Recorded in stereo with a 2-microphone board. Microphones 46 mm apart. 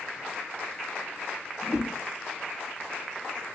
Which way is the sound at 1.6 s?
15° right (ahead or behind).